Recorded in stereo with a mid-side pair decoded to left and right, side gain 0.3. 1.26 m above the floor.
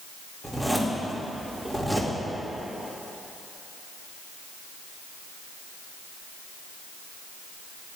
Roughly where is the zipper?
Ahead.